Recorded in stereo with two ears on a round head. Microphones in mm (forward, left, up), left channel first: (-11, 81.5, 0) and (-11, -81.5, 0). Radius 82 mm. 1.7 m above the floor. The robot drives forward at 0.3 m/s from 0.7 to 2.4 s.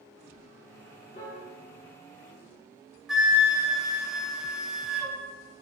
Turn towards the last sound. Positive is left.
turn(degrees=-5)  # may be behind; listen again after turning